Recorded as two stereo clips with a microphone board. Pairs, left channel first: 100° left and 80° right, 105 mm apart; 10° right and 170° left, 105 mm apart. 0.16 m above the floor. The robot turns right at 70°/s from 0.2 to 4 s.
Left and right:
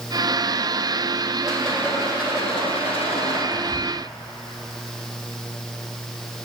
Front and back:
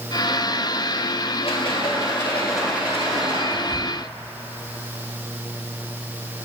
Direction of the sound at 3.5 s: 15° left.